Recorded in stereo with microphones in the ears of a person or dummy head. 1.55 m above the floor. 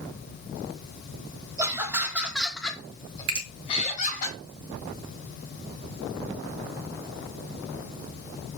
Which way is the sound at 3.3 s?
45° right (ahead or behind).